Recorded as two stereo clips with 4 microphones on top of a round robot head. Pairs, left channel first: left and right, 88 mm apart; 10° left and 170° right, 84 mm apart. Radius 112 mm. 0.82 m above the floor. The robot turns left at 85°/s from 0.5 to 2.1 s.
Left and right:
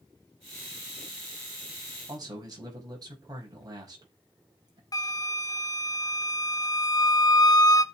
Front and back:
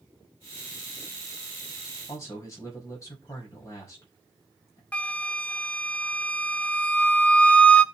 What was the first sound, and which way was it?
A man speaking, 45° right.